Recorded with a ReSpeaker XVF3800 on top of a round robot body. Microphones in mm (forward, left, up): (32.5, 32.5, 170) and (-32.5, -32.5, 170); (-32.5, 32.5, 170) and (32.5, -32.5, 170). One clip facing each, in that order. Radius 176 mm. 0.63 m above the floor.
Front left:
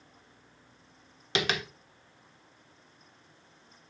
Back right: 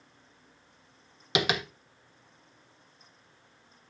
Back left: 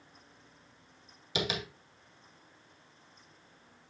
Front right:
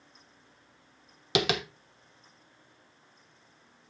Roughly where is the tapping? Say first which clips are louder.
Back right 2 dB, front right 7 dB; ahead right.